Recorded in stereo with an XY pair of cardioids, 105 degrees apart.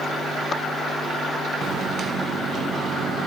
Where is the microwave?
55° right, 1.0 m.